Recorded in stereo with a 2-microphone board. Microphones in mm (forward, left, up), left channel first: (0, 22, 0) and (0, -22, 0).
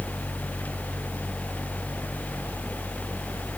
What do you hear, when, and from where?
Only background noise.